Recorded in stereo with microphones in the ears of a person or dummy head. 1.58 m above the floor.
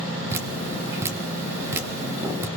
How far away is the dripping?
About 1.7 m.